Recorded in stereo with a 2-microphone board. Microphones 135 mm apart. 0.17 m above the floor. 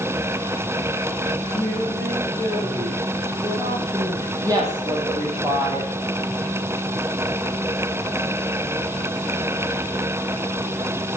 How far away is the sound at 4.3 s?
About 4.5 m.